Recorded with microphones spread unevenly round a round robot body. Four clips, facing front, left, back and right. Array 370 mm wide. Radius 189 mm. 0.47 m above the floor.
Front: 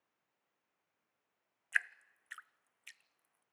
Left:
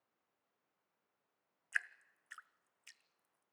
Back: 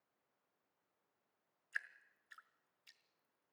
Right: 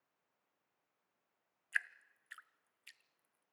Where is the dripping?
10° left, 0.6 m.